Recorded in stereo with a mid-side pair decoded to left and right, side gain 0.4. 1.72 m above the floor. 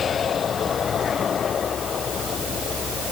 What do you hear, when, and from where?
Only background noise.